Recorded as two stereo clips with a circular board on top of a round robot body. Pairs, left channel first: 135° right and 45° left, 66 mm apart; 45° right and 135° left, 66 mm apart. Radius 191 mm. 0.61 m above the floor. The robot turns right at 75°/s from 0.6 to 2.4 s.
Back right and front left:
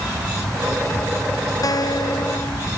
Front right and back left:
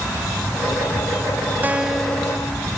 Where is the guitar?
165° right; by 2.7 s 105° right.